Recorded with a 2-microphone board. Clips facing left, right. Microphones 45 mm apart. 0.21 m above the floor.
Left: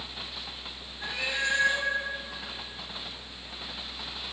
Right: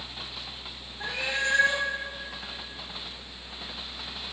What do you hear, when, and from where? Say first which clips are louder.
1.0 s a cat meowing: right 1 dB; 55° right (ahead or behind), 4 m